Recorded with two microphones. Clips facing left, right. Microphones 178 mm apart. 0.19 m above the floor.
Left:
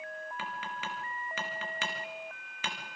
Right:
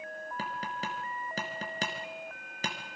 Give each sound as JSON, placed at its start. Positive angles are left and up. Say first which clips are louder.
{"t": 0.4, "sound": "tapping", "louder": "right 6 dB", "side_deg": -40, "distance_m": 3.0}